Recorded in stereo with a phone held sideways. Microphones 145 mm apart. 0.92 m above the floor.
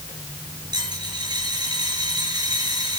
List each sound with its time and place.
0.7 s a dropped coin: 30° right (ahead or behind), 8 m